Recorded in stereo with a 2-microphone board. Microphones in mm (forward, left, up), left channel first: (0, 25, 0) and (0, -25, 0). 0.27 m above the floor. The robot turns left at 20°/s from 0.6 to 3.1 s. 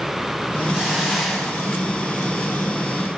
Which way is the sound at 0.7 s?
15° right (ahead or behind).